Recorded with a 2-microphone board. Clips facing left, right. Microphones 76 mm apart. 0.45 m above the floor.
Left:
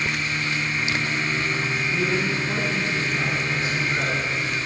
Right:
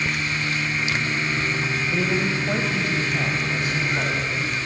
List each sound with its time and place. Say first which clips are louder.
1.9 s a man speaking: right 1 dB; 60° right (ahead or behind), 1.5 m; by 4.6 s 55° right (ahead or behind), 3 m